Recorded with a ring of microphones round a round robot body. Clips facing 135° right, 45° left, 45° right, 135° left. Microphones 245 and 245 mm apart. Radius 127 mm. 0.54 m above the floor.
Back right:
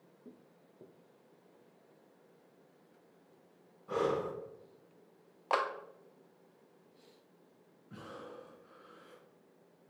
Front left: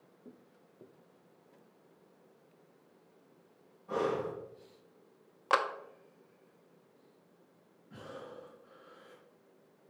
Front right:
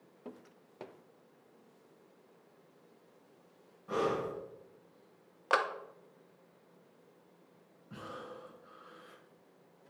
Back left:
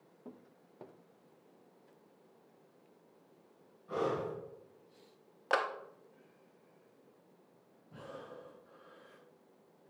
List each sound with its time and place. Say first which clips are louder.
3.9 s breathing: even, front right 2 dB; 65° right, 2 m
5.5 s a clap: front left 1 dB, front right 1 dB; 35° left, 0.6 m
7.9 s breathing: front left 1 dB, front right 2 dB; 55° right, 2 m